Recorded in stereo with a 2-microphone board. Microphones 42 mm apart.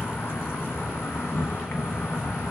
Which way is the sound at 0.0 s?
75° left (ahead or behind).